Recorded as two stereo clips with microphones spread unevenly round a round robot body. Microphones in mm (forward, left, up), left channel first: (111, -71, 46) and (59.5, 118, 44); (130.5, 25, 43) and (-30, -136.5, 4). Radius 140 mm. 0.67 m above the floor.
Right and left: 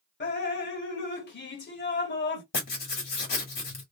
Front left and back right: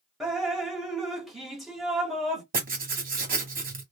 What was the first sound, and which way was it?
Dripping, 50° right.